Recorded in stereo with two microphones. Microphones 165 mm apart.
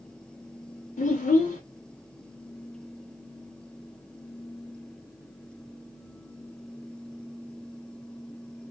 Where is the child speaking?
50° left (ahead or behind), 0.5 m.